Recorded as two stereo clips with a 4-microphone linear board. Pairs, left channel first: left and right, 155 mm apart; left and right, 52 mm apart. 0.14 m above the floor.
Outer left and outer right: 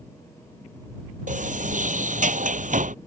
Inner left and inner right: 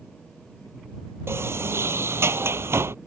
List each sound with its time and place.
1.3 s a sliding door: 60° right (ahead or behind)